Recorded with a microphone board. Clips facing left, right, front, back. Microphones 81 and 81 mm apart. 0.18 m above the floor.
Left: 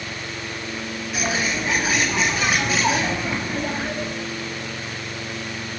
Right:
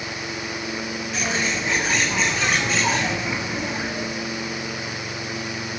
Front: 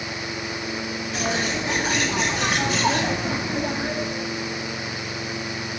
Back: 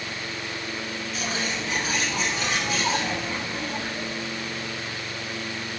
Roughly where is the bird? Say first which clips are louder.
Left 2 dB, front 5 dB; ahead.